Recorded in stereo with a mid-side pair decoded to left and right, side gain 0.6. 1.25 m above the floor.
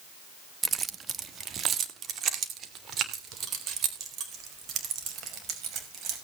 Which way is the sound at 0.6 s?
30° right.